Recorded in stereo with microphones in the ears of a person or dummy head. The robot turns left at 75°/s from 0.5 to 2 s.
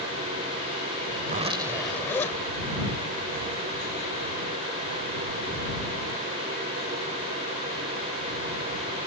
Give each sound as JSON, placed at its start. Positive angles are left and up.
{"t": 1.2, "sound": "a zipper", "azimuth_deg": -135}